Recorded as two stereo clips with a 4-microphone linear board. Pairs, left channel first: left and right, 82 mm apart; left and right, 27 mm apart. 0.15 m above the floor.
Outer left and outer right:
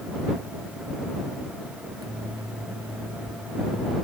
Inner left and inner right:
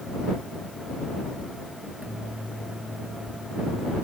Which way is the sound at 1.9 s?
75° right (ahead or behind).